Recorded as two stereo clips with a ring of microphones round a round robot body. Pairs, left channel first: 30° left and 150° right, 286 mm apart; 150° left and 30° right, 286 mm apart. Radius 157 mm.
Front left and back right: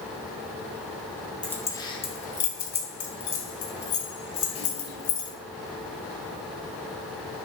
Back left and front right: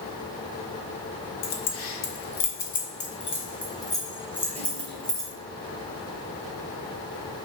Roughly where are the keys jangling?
Behind left.